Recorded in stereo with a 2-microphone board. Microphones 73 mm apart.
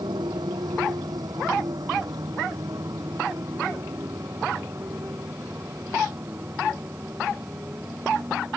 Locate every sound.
0.0 s a motorcycle: 70° right (ahead or behind); by 8.6 s 25° right (ahead or behind)